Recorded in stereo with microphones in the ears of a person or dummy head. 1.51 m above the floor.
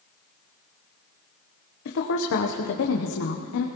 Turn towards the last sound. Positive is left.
turn(degrees=65)  # may be behind; listen again after turning